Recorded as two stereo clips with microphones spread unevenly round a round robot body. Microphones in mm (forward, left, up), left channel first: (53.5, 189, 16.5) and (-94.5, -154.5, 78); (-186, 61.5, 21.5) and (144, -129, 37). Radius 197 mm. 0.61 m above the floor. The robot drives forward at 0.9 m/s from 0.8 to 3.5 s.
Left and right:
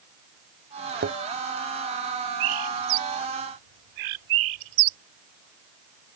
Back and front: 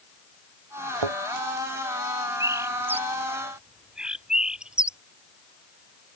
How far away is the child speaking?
I don't hear a child speaking.